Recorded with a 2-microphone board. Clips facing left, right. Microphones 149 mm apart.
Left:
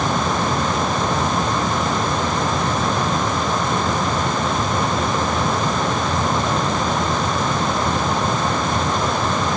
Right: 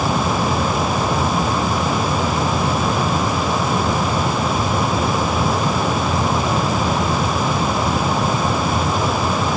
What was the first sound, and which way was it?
Only background noise.